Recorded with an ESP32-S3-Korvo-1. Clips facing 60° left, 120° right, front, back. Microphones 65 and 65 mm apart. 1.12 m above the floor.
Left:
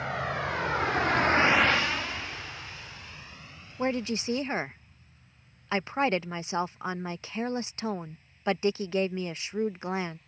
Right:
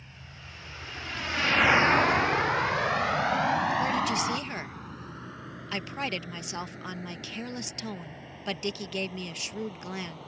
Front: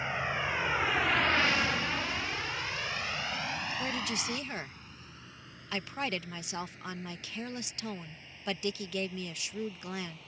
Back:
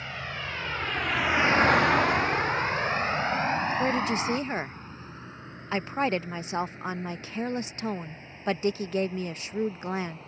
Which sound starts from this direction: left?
A vehicle, at 0.0 s.